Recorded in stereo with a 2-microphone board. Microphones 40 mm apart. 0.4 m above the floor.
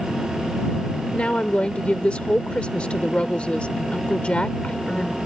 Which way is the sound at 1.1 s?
30° left (ahead or behind).